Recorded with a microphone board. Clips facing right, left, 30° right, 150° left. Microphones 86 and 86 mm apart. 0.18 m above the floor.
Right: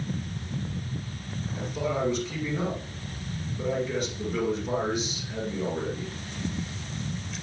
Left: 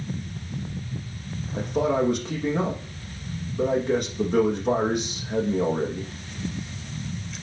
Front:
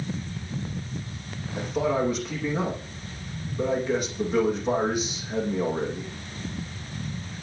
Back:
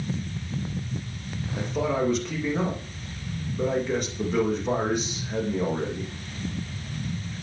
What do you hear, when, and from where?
1.5 s a man speaking: 55° left, 7 m